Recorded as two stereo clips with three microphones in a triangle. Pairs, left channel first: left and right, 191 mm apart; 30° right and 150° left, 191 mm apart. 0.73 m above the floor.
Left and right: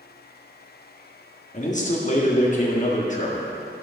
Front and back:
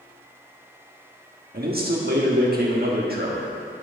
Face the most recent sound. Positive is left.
turn(degrees=130)